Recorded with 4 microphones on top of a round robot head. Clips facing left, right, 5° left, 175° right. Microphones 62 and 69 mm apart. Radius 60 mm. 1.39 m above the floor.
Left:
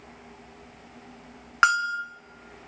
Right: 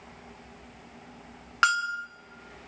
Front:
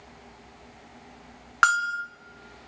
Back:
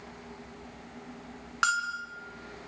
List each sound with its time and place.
1.6 s a bell: 30° left, 1.3 m